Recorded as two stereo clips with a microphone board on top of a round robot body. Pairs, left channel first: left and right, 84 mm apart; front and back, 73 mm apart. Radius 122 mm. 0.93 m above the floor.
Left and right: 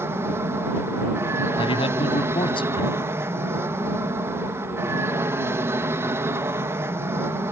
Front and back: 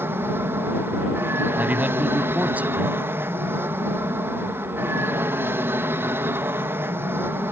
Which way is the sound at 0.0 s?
135° right.